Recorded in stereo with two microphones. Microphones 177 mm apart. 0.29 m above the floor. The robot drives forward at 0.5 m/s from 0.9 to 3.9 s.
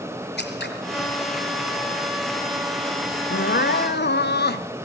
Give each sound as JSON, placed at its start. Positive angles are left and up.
{"t": 0.4, "sound": "scissors", "side_deg": 75, "distance_m": 4.0}
{"t": 3.3, "sound": "crying", "side_deg": 85, "distance_m": 1.0}